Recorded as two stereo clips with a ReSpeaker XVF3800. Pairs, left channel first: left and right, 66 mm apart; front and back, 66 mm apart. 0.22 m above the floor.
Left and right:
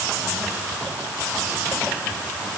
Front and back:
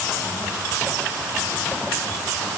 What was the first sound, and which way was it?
Only background noise.